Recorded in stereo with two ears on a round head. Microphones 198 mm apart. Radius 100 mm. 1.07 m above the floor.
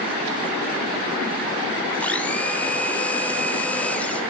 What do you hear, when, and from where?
2.0 s a blender: 5° left (ahead or behind), 0.8 m